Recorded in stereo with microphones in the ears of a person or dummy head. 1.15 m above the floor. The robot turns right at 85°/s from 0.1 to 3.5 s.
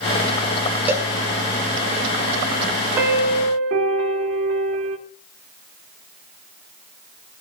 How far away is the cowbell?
About 1.1 m.